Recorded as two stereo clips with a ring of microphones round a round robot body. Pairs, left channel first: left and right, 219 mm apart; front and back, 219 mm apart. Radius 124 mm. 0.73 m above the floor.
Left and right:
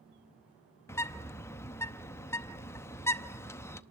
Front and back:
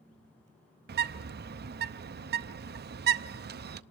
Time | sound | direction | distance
0.9 | a bird | 165° left | 0.7 m